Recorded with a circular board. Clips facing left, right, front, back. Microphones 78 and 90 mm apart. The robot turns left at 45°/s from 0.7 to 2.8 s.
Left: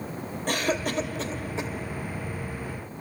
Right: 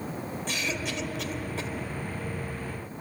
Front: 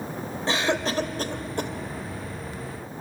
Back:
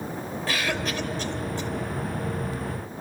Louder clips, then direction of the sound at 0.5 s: Left 8 dB, front 4 dB; 60° left.